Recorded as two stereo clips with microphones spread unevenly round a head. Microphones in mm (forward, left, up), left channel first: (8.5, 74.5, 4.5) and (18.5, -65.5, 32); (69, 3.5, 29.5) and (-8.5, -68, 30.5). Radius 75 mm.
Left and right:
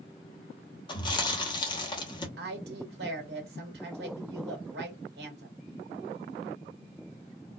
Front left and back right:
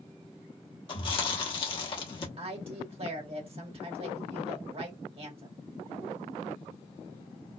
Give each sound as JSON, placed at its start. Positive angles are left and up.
{"t": 0.9, "sound": "chewing", "azimuth_deg": 35, "distance_m": 1.0}
{"t": 2.4, "sound": "a woman speaking", "azimuth_deg": -105, "distance_m": 1.8}